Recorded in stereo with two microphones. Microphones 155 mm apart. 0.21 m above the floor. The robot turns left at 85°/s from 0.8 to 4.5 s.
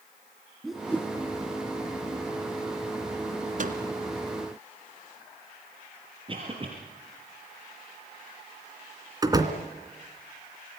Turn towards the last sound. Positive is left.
turn(degrees=-25)  # may be behind; listen again after turning